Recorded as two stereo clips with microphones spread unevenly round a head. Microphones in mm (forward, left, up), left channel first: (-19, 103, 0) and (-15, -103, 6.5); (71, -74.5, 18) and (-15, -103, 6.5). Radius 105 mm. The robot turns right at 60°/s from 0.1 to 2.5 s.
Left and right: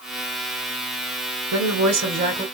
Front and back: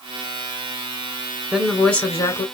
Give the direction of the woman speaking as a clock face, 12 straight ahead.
3 o'clock.